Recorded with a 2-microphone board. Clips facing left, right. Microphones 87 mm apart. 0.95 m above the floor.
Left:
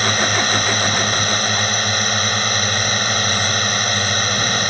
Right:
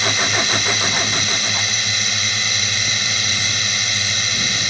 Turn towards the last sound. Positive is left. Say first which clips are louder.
# left 3 dB
turn(degrees=45)  # may be behind; listen again after turning